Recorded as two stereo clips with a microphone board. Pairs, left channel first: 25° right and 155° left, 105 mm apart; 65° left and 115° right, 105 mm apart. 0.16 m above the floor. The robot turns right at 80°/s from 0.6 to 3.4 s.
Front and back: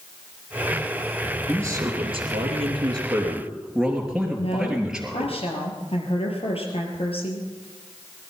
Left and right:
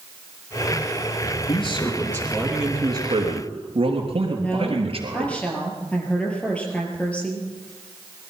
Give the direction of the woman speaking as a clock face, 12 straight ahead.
12 o'clock.